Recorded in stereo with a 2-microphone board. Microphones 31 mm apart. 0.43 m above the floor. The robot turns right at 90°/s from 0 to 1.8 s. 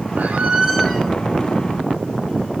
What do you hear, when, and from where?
0.2 s a squeak: 65° right, 1.0 m; by 1.1 s 20° left, 1.0 m